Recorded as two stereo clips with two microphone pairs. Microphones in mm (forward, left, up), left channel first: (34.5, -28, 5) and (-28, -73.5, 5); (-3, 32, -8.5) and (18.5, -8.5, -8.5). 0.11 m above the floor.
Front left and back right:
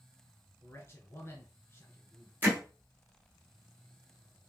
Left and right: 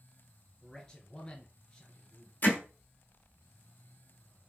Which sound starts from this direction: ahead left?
A man speaking, at 0.6 s.